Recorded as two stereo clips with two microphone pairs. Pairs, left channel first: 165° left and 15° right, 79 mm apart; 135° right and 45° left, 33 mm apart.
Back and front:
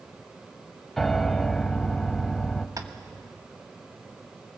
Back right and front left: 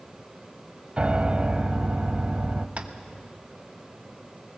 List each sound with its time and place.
1.0 s a piano: 80° left, 0.9 m
2.8 s tapping: 10° left, 1.2 m